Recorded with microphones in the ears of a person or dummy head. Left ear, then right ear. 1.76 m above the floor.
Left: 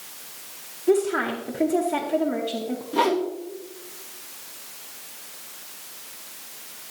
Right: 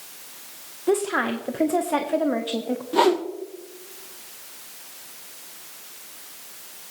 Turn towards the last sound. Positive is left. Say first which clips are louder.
# right 2 dB
turn(degrees=-25)  # may be behind; listen again after turning